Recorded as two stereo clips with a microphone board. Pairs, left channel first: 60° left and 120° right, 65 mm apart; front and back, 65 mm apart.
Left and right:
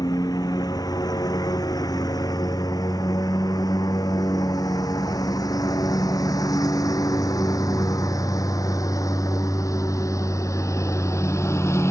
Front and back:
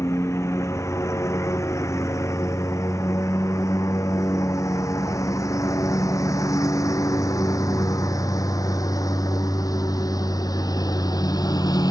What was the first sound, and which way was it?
A lawn mower, 45° left.